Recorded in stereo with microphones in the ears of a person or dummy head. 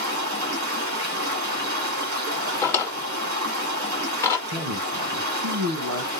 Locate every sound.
0.0 s running water: 50° right (ahead or behind), 1.6 m
2.6 s a drawer: 15° left (ahead or behind), 0.9 m
4.5 s a man speaking: 75° right (ahead or behind), 1.0 m